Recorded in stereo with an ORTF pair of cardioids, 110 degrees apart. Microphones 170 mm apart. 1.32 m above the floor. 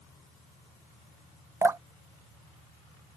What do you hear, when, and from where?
1.6 s dripping: 20° right